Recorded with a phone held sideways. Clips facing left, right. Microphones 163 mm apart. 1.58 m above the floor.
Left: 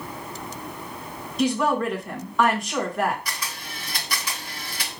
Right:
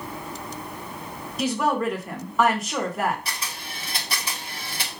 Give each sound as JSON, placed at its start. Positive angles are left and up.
{"t": 1.4, "sound": "a woman speaking", "side_deg": -5, "distance_m": 2.0}
{"t": 3.2, "sound": "a camera shutter", "side_deg": -30, "distance_m": 2.0}